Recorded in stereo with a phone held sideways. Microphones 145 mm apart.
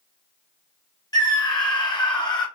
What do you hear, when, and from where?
1.1 s a scream: 30° left (ahead or behind), 1.0 m